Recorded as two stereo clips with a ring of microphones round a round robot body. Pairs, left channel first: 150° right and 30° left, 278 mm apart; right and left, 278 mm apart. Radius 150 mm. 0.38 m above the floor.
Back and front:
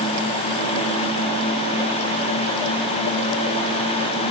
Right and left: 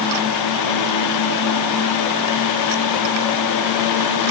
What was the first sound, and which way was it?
Only background noise.